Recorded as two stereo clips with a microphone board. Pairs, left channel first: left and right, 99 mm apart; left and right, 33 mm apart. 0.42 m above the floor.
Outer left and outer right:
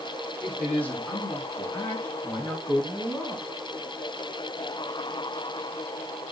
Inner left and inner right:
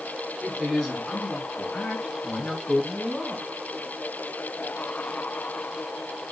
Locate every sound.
0.4 s a woman speaking: 10° left (ahead or behind), 3.5 m; by 3.5 s 40° left (ahead or behind), 4 m